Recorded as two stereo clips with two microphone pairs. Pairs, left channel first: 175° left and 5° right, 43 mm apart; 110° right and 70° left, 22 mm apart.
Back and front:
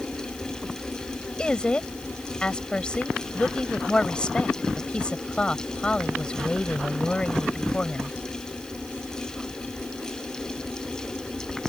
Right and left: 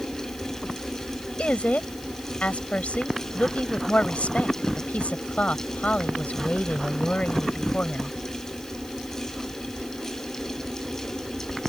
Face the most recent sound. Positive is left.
turn(degrees=-115)